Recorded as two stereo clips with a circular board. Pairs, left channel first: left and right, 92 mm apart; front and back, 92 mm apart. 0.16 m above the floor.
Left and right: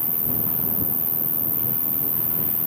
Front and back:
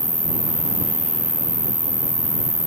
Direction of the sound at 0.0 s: 155° right.